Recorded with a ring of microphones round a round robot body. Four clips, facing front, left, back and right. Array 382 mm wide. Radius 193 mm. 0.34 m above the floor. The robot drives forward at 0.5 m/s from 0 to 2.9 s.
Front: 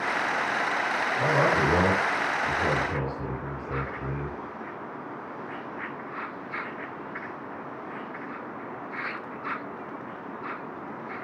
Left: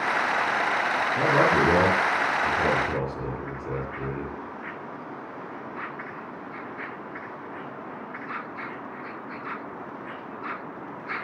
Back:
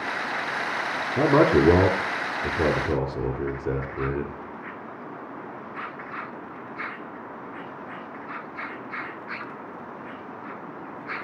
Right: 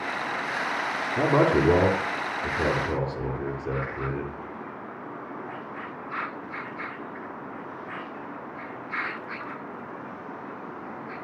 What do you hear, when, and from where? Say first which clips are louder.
1.2 s a man speaking: right 1 dB, back 6 dB; 175° right, 5 m